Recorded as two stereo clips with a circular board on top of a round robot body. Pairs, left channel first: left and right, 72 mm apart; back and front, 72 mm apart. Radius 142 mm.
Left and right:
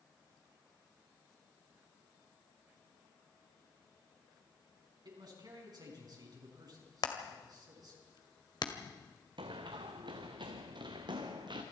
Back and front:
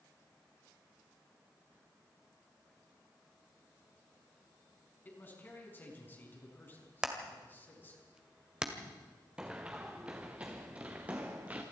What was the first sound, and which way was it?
A man speaking, 115° right.